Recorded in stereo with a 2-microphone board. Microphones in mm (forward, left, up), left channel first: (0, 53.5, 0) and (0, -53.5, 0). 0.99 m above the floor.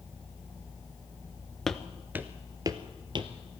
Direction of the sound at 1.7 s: 5° left (ahead or behind).